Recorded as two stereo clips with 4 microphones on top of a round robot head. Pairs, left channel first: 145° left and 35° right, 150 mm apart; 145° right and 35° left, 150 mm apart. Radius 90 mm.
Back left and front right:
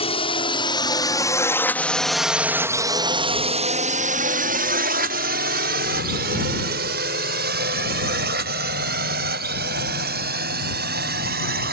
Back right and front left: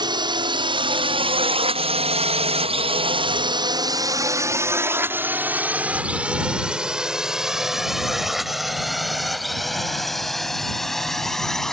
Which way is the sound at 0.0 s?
95° left.